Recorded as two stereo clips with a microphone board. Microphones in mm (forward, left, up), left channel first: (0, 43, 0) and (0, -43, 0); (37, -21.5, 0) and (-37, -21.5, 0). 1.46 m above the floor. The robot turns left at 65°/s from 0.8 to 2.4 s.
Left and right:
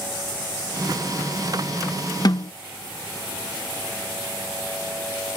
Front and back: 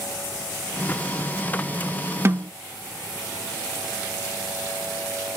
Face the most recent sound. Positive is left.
turn(degrees=120)